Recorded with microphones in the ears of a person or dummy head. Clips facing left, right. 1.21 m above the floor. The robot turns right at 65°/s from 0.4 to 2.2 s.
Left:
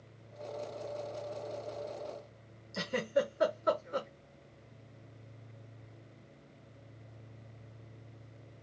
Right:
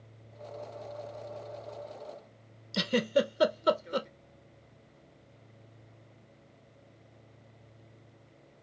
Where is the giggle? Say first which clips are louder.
Right 4 dB; 55° right (ahead or behind), 0.7 m.